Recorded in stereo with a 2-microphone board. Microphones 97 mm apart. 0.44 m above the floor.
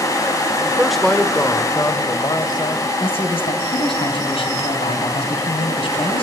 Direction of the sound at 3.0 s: 70° left (ahead or behind).